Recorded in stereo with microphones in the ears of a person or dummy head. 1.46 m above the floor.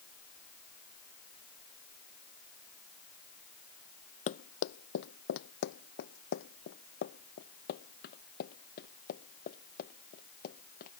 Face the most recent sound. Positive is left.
turn(degrees=50)  # may be behind; listen again after turning